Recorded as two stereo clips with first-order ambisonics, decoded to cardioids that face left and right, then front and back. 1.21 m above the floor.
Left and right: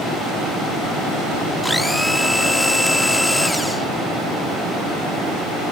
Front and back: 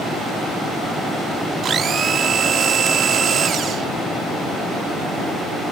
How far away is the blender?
About 0.7 m.